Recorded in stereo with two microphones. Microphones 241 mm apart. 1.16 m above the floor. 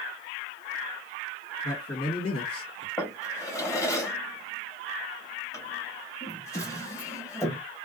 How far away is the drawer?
About 0.9 m.